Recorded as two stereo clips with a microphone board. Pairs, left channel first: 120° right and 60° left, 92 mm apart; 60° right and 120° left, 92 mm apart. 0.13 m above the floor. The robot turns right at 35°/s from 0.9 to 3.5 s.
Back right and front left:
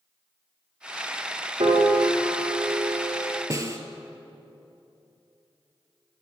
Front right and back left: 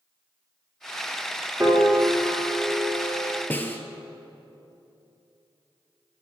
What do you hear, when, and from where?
1.6 s a piano: 60° left, 2.5 m; by 3.4 s 120° left, 2.5 m
3.5 s a snare drum: 10° left, 0.7 m